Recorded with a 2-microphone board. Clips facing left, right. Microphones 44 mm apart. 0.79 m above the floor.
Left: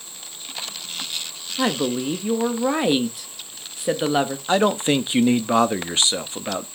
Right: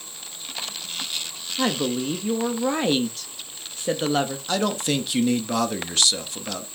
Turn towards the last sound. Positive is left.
turn(degrees=25)  # may be behind; listen again after turning